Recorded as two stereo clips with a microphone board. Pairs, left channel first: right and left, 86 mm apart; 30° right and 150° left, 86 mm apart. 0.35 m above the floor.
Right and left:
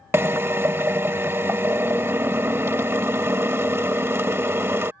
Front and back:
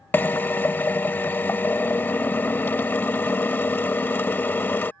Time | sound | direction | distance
0.1 | a drill | 30° left | ?